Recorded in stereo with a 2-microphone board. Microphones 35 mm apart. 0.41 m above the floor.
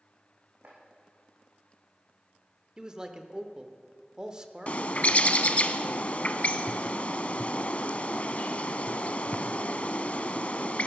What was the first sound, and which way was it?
Chopping, 65° right (ahead or behind).